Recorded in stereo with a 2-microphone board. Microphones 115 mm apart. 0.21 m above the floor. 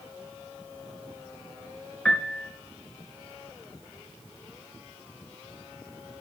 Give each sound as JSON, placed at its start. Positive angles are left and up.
{"t": 2.0, "sound": "a piano", "side_deg": 10, "distance_m": 2.0}